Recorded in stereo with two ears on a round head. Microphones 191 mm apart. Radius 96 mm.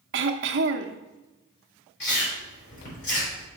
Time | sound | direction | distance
0.1 | throat clearing | 55° right (ahead or behind) | 0.7 m
2.0 | chewing | 55° left (ahead or behind) | 3.5 m